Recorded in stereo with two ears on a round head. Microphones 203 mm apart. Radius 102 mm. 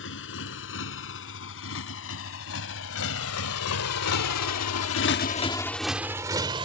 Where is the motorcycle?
55° left (ahead or behind); by 6.7 s 20° right (ahead or behind).